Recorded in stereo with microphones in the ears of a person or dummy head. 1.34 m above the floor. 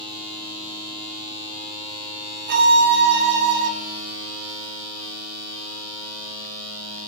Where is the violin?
55° right (ahead or behind), 0.6 m.